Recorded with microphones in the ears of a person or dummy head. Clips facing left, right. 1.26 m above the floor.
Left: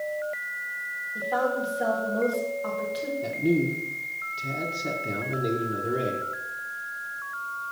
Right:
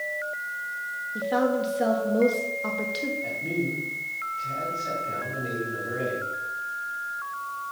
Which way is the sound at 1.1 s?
30° right (ahead or behind).